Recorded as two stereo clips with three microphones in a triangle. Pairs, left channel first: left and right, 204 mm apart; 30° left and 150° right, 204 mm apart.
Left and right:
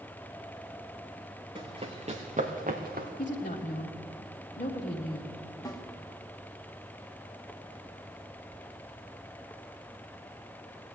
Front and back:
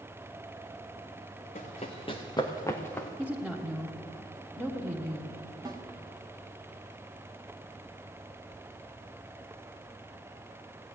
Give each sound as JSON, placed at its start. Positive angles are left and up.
{"t": 1.6, "sound": "running footsteps", "azimuth_deg": -25, "distance_m": 1.8}
{"t": 3.2, "sound": "a woman speaking", "azimuth_deg": 125, "distance_m": 1.3}
{"t": 5.7, "sound": "a snare drum", "azimuth_deg": 150, "distance_m": 1.3}